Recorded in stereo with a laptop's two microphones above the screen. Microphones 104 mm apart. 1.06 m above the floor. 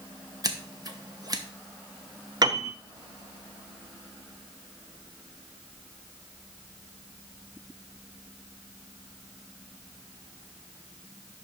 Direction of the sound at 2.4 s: 40° right (ahead or behind).